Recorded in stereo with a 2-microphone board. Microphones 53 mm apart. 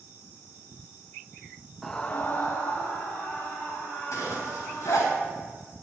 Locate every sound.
1.8 s a scream: 5° left (ahead or behind), 0.6 m; by 5.1 s 50° left (ahead or behind), 4.5 m
4.1 s a zipper: 75° left (ahead or behind), 3.5 m